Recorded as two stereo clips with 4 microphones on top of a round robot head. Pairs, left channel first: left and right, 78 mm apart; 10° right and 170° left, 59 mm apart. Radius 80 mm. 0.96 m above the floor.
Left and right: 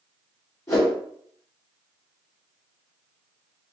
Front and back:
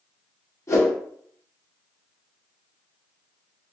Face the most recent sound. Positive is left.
turn(degrees=30)